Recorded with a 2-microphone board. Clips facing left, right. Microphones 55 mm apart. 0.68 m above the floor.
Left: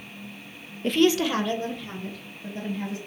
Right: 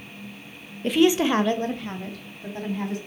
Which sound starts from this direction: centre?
A woman speaking, at 0.8 s.